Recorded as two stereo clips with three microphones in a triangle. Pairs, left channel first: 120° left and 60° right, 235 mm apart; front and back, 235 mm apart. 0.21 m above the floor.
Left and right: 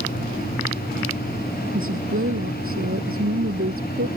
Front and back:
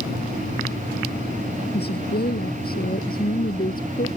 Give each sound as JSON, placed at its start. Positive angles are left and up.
{"t": 1.7, "sound": "a woman speaking", "azimuth_deg": -40}